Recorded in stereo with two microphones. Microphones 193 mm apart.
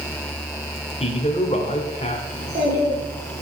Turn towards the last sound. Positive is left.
turn(degrees=-50)  # may be behind; listen again after turning